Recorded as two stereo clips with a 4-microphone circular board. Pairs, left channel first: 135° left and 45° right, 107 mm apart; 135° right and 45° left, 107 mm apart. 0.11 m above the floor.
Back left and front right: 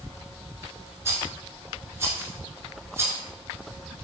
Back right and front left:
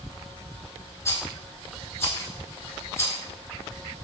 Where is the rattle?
90° right, 0.8 m.